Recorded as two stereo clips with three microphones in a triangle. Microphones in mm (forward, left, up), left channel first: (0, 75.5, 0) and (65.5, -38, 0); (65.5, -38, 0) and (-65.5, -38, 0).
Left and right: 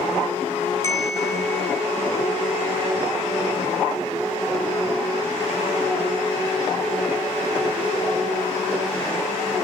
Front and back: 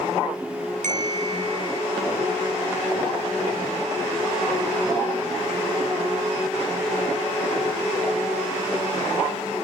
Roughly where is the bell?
Behind.